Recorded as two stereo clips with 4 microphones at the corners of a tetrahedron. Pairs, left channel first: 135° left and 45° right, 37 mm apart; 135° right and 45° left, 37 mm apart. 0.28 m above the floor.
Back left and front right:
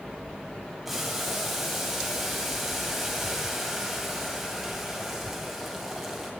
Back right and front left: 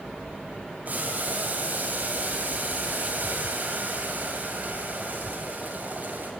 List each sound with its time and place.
0.8 s boiling: 45° left, 2 m